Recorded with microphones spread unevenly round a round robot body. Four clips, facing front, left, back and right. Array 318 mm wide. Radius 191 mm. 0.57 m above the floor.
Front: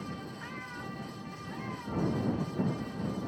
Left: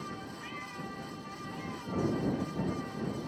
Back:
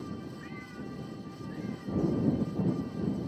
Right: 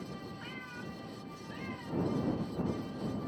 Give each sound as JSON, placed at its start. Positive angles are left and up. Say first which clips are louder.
{"t": 0.4, "sound": "a cat meowing", "louder": "left 2 dB, even", "azimuth_deg": 10}